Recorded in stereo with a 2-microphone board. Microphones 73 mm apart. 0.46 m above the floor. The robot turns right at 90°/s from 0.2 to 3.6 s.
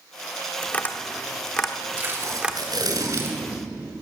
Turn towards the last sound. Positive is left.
turn(degrees=-5)